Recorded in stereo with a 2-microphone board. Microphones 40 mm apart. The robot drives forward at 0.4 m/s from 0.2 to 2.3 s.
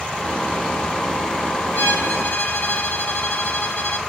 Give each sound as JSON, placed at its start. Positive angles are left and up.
{"t": 1.7, "sound": "a violin", "side_deg": 70, "distance_m": 5.0}